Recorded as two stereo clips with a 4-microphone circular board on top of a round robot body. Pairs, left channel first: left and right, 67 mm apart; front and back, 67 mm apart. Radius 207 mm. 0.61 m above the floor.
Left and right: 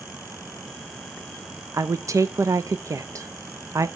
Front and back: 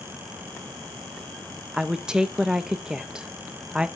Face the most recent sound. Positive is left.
turn(degrees=-105)